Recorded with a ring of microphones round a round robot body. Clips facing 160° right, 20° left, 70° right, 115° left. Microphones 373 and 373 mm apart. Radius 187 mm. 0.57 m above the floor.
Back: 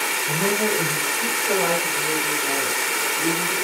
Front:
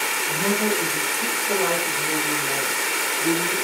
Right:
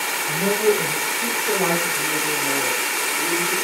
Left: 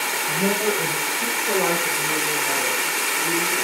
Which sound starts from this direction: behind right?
A woman speaking, at 0.3 s.